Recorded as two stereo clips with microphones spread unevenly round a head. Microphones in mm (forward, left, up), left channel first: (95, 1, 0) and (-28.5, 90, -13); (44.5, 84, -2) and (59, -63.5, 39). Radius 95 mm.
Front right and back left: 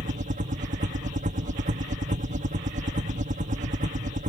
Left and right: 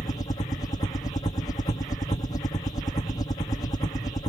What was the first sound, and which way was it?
A helicopter, 140° left.